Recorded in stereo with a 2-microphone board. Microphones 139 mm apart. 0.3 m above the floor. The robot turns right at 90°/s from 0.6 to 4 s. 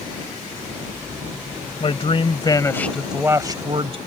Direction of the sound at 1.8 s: 70° left.